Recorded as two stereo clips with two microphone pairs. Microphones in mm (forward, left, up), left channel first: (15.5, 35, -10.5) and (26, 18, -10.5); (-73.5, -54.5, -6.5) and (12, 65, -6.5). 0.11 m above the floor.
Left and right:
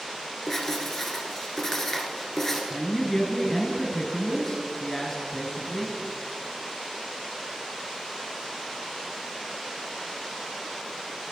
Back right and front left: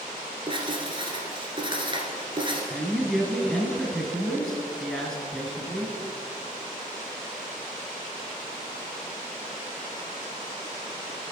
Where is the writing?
55° left, 1.7 m.